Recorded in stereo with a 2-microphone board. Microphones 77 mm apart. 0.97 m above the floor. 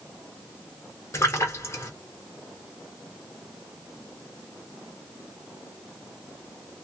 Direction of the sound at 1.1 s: 40° left (ahead or behind).